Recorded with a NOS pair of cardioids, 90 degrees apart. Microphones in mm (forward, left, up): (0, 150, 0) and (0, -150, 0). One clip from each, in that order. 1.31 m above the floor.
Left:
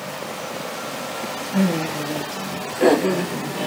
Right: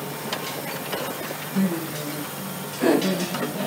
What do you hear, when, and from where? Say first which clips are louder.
1.5 s laughter: left 6 dB; 60° left, 3.5 m; by 3.7 s 50° left, 2 m